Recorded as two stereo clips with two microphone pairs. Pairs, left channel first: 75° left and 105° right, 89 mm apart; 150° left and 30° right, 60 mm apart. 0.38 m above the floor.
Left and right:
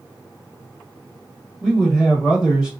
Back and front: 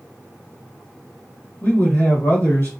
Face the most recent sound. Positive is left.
turn(degrees=175)